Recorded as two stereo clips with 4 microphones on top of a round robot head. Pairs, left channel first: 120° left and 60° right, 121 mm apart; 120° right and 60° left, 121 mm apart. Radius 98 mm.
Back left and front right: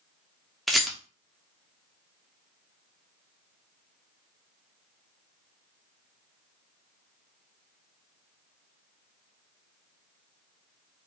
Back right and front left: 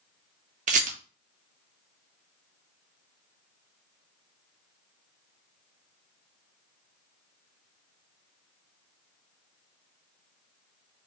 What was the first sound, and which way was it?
A rattle, 30° left.